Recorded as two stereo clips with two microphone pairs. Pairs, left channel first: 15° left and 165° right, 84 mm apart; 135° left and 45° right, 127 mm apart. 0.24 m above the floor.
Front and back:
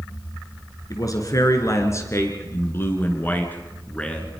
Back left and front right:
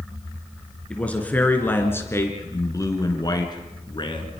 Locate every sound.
0.9 s a man speaking: 55° left, 3.5 m; by 4.4 s 95° left, 3.5 m